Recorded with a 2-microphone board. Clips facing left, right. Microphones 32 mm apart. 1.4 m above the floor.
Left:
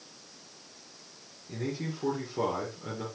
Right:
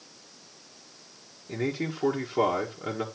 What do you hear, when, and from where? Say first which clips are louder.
1.5 s a man speaking: right 5 dB; 40° right (ahead or behind), 1.6 m